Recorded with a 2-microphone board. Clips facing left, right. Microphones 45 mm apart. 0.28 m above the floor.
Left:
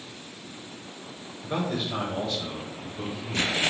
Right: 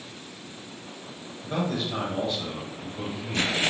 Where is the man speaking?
20° left (ahead or behind), 1.2 m; by 3.6 s 45° right (ahead or behind), 1.8 m.